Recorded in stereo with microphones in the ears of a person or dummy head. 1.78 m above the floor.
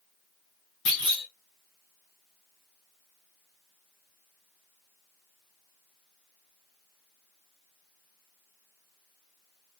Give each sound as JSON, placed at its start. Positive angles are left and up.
{"t": 0.8, "sound": "a clunk", "side_deg": 65, "distance_m": 4.5}